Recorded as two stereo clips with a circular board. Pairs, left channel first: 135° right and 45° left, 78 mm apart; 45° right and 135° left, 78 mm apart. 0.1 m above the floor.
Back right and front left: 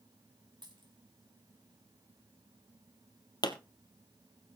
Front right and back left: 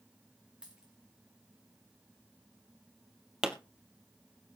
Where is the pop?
145° right, 1.1 m.